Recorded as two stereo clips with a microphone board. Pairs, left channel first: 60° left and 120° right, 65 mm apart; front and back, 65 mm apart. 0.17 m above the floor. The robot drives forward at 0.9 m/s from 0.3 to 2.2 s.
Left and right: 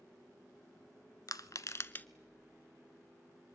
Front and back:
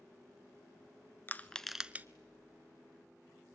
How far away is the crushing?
About 0.7 m.